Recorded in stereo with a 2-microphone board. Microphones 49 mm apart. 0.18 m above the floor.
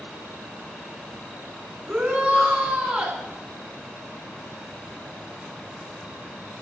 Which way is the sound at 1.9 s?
25° right (ahead or behind).